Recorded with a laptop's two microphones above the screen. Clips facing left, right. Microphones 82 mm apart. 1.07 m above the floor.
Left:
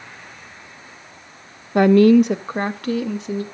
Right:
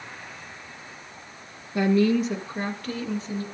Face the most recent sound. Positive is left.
turn(degrees=80)